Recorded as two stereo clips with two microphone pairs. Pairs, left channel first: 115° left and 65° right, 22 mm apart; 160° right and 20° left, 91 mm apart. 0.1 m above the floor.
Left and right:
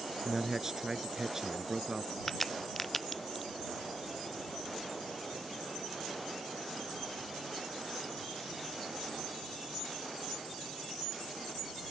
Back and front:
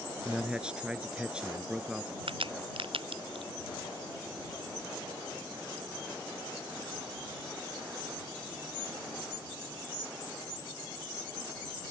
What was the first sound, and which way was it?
A man speaking, 40° right.